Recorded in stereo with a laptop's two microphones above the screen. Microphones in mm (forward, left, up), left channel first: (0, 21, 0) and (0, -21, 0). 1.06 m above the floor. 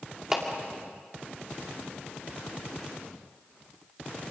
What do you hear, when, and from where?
0.3 s a clap: 10° right (ahead or behind), 2.5 m